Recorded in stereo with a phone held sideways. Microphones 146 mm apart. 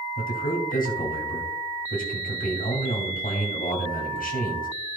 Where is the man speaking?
80° left, 2.5 m.